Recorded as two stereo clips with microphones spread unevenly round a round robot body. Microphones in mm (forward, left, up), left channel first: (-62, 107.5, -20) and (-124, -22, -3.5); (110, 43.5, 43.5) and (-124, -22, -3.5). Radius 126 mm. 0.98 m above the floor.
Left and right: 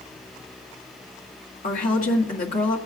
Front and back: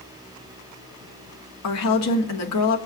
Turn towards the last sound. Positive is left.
turn(degrees=35)